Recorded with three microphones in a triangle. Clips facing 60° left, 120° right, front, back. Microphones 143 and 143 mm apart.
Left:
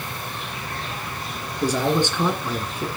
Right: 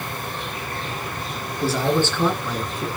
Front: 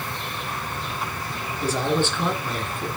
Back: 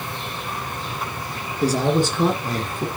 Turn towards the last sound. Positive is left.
turn(degrees=145)